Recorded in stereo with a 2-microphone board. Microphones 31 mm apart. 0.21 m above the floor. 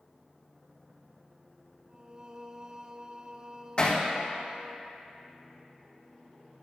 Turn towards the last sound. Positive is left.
turn(degrees=40)  # may be behind; listen again after turning